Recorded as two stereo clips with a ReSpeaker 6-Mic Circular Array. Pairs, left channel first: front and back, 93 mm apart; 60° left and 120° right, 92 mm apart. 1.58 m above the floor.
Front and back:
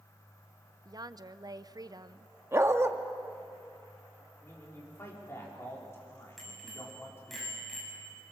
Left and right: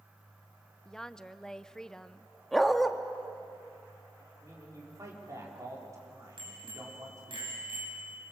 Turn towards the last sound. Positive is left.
turn(degrees=-90)